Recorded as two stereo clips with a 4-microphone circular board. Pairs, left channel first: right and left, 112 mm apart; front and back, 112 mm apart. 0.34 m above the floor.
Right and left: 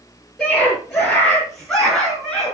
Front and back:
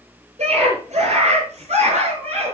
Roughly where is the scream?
Behind.